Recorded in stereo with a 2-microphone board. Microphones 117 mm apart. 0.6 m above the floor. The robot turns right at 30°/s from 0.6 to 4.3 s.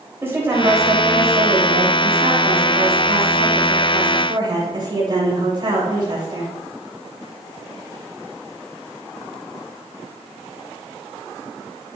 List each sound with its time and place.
0.2 s a woman speaking: 155° right, 3 m; by 6.5 s 45° right, 3 m